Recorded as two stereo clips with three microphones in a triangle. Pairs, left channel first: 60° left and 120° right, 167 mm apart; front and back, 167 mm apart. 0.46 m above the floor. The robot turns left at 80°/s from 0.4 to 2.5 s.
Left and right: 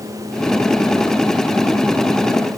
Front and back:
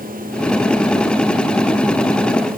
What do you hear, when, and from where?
Only background noise.